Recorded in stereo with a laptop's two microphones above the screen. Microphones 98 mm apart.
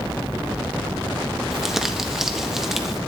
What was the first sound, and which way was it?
Crumpling, 5° right (ahead or behind).